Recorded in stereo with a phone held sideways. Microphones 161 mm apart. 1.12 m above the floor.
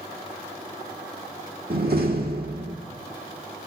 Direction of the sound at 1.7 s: 75° right (ahead or behind).